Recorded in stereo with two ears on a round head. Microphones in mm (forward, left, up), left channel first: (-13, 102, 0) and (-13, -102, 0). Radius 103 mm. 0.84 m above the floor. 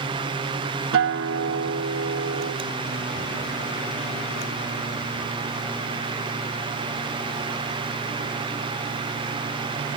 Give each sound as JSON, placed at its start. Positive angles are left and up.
{"t": 0.9, "sound": "a guitar", "side_deg": -60}